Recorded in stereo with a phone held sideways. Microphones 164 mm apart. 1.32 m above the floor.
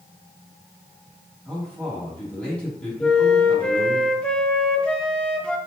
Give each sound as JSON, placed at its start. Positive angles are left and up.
{"t": 1.4, "sound": "a man speaking", "side_deg": 10, "distance_m": 3.0}
{"t": 3.0, "sound": "a flute", "side_deg": 5, "distance_m": 0.7}